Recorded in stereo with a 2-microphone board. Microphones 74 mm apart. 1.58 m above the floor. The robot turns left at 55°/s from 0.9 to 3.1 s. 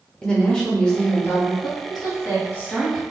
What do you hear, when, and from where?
0.2 s a woman speaking: 170° left, 0.8 m; by 1.5 s 135° left, 0.8 m
1.6 s a woman speaking: 70° left (ahead or behind), 1.1 m; by 3.0 s 5° left (ahead or behind), 1.1 m